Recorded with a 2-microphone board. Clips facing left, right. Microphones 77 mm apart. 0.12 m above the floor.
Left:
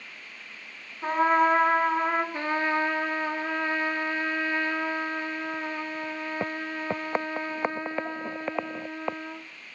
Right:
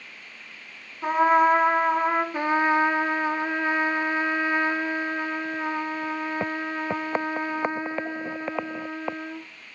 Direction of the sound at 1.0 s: 5° right (ahead or behind).